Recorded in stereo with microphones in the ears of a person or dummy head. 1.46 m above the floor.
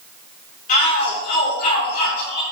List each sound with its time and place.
0.7 s a shout: 40° left (ahead or behind), 3.5 m